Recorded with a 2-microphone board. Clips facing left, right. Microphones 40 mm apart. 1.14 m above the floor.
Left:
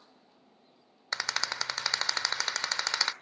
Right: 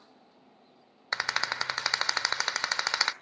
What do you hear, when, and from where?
1.1 s a rattle: 15° right (ahead or behind), 0.8 m